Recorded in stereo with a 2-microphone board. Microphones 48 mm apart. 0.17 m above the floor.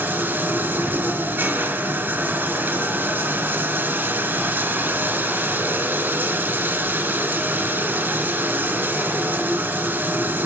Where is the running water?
50° right (ahead or behind), 1.8 m.